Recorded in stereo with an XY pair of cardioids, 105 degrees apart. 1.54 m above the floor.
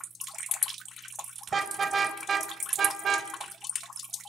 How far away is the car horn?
About 3.5 m.